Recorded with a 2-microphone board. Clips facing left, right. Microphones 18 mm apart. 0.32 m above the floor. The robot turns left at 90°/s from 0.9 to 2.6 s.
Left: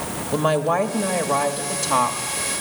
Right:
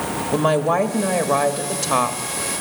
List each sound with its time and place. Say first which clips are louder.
0.3 s a woman speaking: right 1 dB; 5° right (ahead or behind), 1.0 m; by 2.5 s 10° right (ahead or behind), 1.0 m